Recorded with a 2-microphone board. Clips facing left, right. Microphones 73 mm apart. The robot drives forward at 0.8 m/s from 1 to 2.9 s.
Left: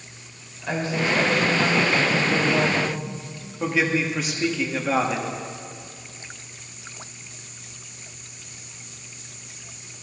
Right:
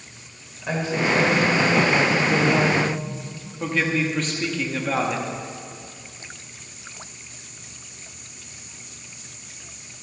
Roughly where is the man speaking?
Centre.